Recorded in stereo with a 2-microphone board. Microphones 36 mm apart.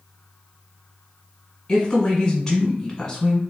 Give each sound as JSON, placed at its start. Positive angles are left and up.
{"t": 1.7, "sound": "a woman speaking", "side_deg": 20, "distance_m": 1.1}